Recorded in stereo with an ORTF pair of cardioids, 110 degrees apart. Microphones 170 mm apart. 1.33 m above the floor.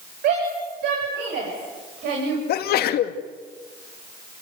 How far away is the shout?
About 9 m.